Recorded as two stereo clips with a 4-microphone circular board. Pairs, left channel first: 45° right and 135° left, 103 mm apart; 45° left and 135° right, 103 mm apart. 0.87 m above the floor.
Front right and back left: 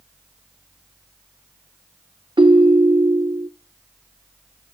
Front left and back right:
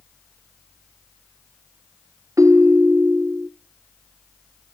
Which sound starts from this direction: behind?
A ringtone, at 2.4 s.